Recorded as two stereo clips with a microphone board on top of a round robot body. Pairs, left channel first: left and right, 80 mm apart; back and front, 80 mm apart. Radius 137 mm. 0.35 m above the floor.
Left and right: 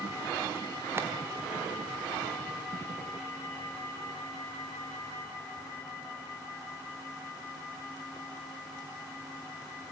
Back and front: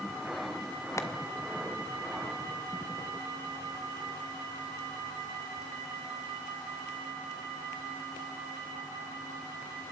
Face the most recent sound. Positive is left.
turn(degrees=-140)